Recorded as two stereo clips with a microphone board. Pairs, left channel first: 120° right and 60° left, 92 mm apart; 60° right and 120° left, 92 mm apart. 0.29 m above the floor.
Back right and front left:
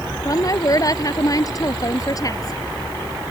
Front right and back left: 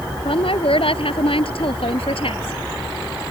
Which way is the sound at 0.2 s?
70° right.